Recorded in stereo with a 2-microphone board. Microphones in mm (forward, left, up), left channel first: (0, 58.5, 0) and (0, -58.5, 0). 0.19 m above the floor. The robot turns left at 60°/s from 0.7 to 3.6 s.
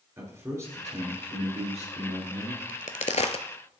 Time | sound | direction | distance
0.2 | a man speaking | 25° right | 3.5 m
2.7 | a crack | 85° left | 0.5 m